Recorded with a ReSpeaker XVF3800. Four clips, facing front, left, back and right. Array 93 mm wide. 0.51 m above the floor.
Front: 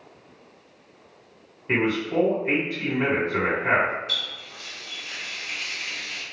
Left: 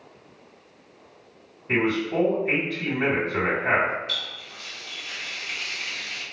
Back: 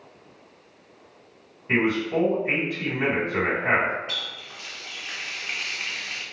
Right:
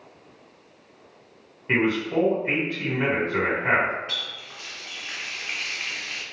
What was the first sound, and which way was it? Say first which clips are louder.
A man speaking: right 1 dB, back 1 dB; 60° right.